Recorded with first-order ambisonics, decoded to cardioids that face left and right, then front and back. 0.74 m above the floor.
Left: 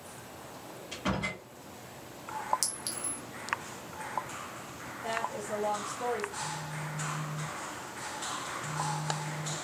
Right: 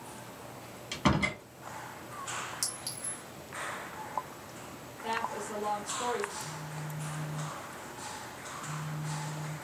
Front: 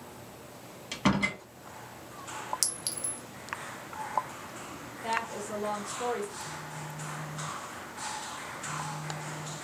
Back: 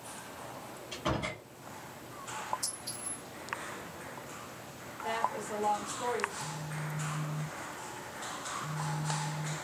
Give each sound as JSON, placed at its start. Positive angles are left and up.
{"t": 0.9, "sound": "a door slam", "azimuth_deg": -40, "distance_m": 0.9}
{"t": 2.6, "sound": "a clink", "azimuth_deg": 15, "distance_m": 0.6}
{"t": 5.0, "sound": "a woman speaking", "azimuth_deg": -20, "distance_m": 1.0}
{"t": 6.4, "sound": "a phone buzzing", "azimuth_deg": 170, "distance_m": 0.6}